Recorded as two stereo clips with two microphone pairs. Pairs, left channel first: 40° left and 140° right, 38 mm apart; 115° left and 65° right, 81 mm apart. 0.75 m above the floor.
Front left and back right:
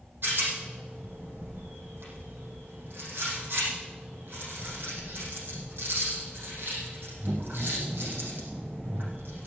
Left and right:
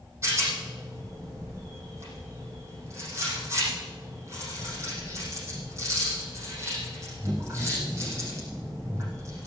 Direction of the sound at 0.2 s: 120° right.